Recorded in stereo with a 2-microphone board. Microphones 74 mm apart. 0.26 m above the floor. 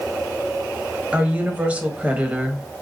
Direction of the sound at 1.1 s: 20° right (ahead or behind).